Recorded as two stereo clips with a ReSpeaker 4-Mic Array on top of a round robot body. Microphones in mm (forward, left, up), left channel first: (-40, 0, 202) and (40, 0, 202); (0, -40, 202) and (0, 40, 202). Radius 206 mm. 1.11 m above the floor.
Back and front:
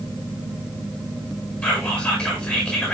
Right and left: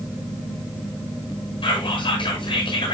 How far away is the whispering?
About 7 m.